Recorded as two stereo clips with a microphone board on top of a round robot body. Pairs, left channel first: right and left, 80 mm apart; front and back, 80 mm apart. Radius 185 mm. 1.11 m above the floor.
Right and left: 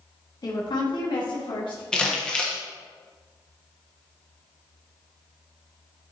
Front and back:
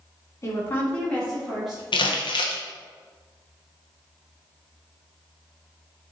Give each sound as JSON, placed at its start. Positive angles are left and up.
{"t": 0.4, "sound": "a woman speaking", "azimuth_deg": -55, "distance_m": 1.9}
{"t": 1.9, "sound": "crumpling", "azimuth_deg": -10, "distance_m": 1.2}